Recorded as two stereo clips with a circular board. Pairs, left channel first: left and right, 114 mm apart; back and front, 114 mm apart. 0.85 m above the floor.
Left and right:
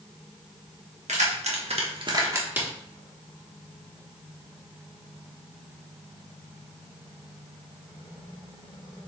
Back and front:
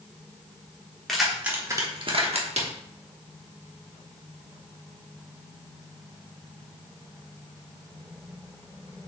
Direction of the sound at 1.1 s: 95° right.